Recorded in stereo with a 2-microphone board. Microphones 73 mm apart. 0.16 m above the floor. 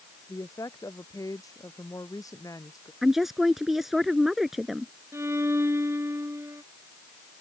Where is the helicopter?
I don't hear a helicopter.